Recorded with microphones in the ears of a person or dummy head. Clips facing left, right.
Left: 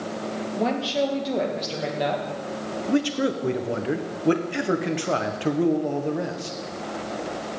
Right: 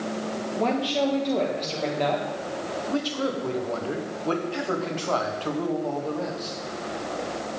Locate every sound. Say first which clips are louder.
0.6 s a woman speaking: even; 5° left (ahead or behind), 2 m
2.9 s a man speaking: left 5 dB; 25° left (ahead or behind), 1.0 m